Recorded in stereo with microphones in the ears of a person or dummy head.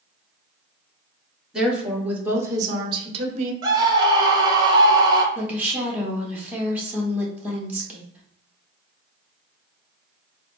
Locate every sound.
1.5 s a woman speaking: centre (ahead or behind), 1.3 m; by 3.5 s 45° right (ahead or behind), 0.7 m
3.6 s a scream: 25° right (ahead or behind), 1.0 m
5.3 s a woman speaking: 10° right (ahead or behind), 1.1 m